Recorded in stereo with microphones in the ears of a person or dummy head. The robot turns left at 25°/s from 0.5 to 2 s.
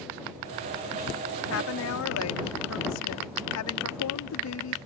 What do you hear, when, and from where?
1.5 s a woman speaking: 55° left (ahead or behind); by 4.8 s 70° left (ahead or behind)